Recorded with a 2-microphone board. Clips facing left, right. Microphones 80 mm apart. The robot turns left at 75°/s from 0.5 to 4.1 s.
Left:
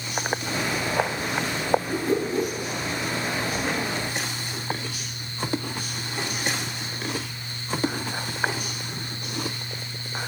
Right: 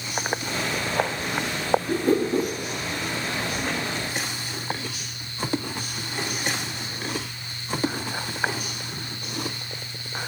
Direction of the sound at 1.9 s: 90° right.